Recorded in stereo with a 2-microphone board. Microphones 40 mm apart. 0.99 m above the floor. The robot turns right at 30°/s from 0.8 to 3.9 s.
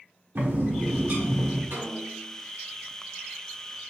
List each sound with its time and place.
0.3 s a bird: 75° right (ahead or behind), 1.5 m
1.7 s a snare drum: 60° right (ahead or behind), 2 m; by 2.4 s 40° right (ahead or behind), 2 m